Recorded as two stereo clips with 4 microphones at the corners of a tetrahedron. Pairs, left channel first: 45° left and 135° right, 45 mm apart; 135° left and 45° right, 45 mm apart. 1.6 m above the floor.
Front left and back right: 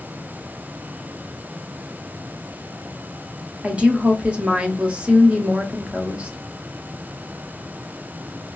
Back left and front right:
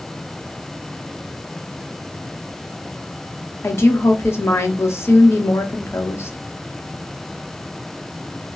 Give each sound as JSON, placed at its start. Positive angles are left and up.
{"t": 3.6, "sound": "a woman speaking", "azimuth_deg": 160, "distance_m": 0.9}